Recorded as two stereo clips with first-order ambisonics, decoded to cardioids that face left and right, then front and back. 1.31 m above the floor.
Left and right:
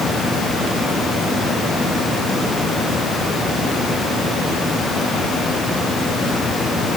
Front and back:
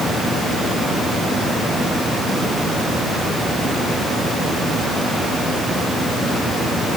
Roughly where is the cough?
No cough in this recording.